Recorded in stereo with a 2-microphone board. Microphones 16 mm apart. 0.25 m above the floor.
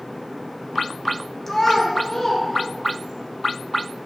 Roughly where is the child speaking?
Centre.